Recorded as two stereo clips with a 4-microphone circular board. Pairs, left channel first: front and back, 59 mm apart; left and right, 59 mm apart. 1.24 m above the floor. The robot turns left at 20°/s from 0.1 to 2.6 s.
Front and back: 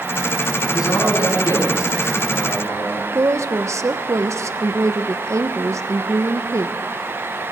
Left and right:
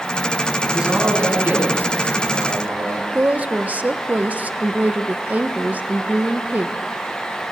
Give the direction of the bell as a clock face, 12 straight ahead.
No bell in this recording.